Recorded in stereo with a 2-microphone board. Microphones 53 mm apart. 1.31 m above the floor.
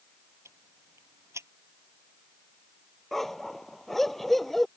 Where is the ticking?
60° right (ahead or behind).